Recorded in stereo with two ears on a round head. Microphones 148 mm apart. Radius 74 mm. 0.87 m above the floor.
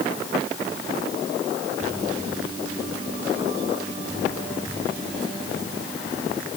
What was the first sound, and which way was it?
Only background noise.